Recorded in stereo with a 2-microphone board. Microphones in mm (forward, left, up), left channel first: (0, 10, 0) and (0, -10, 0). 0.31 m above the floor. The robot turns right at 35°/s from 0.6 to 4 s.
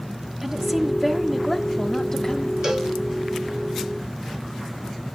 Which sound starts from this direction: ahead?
A woman speaking, at 0.4 s.